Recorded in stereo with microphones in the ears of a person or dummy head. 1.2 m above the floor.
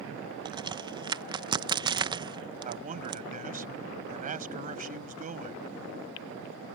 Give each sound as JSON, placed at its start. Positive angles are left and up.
{"t": 0.5, "sound": "a crack", "side_deg": -20}
{"t": 2.6, "sound": "a man speaking", "side_deg": -35}